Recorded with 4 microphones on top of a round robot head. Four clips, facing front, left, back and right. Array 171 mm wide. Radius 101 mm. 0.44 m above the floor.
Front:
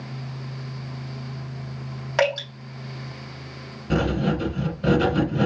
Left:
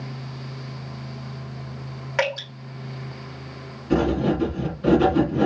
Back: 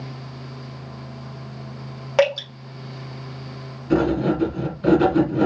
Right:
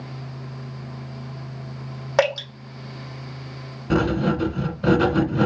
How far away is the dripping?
About 2.5 m.